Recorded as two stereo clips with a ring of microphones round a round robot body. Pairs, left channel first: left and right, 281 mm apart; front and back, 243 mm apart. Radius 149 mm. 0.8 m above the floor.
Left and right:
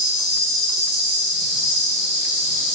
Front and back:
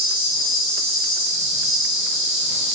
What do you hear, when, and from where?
0.0 s an insect: 135° left, 2 m